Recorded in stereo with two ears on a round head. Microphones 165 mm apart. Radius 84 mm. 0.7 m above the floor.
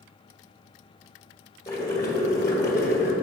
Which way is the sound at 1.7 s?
20° left (ahead or behind).